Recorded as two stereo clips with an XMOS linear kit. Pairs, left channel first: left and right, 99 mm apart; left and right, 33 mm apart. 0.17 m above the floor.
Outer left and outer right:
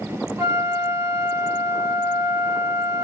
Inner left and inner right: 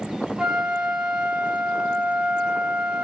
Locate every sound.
0.4 s a flute: 30° right (ahead or behind), 1.9 m